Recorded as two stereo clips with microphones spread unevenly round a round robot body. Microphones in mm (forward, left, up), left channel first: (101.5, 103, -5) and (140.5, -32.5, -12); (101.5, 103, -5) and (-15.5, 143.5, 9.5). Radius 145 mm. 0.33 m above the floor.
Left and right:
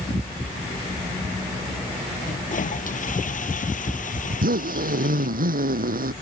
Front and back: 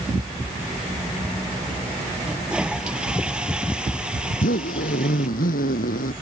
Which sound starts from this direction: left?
A toilet flushing, at 2.2 s.